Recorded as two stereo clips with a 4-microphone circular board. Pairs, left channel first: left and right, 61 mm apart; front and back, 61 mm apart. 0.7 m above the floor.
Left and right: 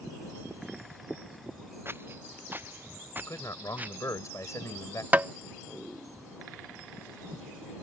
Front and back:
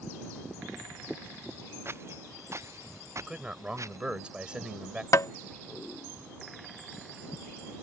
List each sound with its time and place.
1.9 s footsteps: 135° right; by 4.0 s 150° right
3.2 s a man speaking: 105° left
5.1 s tapping: 30° right